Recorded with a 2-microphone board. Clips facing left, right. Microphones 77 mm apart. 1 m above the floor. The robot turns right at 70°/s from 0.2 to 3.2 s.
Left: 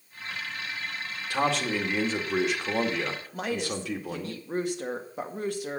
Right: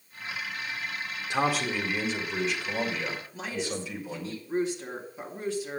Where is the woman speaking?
60° left (ahead or behind), 1.9 m.